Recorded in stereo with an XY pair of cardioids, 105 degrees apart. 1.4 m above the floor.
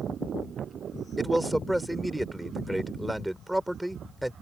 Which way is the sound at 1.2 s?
Straight ahead.